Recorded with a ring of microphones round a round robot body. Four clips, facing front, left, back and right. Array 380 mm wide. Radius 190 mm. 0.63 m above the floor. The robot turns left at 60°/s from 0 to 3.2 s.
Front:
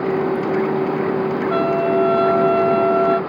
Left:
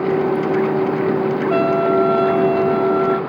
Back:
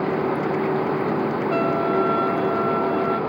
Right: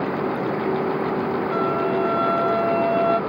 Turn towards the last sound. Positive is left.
turn(degrees=-30)